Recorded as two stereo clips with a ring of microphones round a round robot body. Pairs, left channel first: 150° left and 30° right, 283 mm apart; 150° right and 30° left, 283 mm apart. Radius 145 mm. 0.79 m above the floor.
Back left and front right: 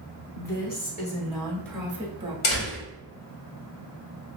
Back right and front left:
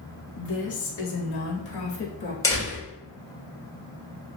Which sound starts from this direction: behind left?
A door slam, at 2.4 s.